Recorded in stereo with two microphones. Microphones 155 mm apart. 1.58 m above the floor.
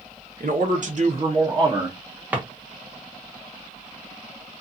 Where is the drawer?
10° right (ahead or behind), 0.8 m.